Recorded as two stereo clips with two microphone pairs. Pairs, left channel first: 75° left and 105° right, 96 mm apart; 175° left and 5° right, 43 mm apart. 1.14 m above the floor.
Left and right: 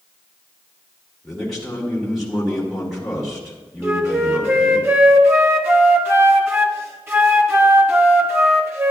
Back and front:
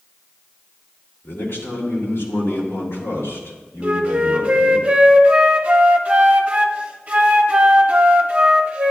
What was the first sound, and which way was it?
A man speaking, 165° left.